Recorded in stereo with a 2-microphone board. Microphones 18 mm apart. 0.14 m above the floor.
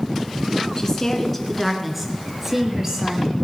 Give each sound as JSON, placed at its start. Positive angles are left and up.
{"t": 0.8, "sound": "a woman speaking", "side_deg": 30, "distance_m": 1.5}